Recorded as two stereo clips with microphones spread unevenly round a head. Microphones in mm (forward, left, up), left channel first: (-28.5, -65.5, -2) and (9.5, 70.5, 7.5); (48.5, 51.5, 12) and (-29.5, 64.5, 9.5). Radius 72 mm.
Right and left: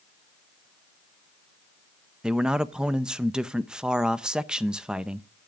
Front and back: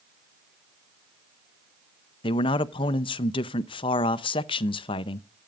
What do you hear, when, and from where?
2.2 s a man speaking: 10° right, 0.6 m